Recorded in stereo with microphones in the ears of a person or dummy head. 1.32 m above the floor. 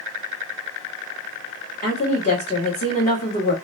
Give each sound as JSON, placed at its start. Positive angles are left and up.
{"t": 1.8, "sound": "a woman speaking", "side_deg": 35, "distance_m": 1.3}